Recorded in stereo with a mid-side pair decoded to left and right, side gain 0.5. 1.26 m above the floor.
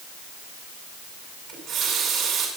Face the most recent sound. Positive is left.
turn(degrees=-70)